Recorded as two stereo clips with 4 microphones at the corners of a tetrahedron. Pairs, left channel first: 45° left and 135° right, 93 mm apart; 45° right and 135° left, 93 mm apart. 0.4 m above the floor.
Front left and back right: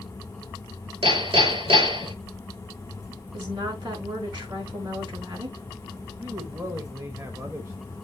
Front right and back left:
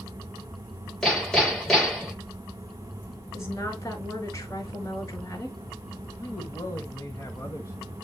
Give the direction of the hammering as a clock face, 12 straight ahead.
4 o'clock.